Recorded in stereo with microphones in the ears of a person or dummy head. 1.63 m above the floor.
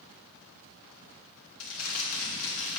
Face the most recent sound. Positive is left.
turn(degrees=75)  # may be behind; listen again after turning